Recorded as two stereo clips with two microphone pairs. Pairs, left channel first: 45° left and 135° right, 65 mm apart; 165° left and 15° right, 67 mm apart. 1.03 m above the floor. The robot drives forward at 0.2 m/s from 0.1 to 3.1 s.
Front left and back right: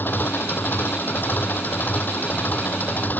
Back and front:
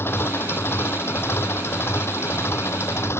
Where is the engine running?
110° left.